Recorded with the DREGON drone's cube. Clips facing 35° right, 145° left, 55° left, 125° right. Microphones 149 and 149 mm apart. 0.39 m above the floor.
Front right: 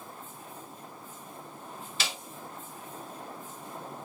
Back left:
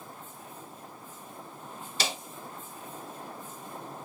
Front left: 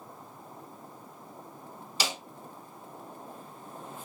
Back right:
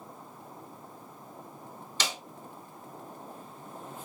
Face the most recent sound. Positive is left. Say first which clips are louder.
# back left 4 dB, front left 2 dB
turn(degrees=130)